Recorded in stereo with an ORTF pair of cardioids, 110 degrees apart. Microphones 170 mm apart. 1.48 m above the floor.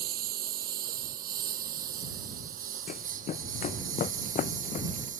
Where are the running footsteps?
55° left.